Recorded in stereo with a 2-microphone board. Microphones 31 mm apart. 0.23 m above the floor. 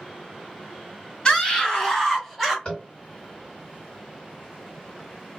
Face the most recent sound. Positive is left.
turn(degrees=30)  # may be behind; listen again after turning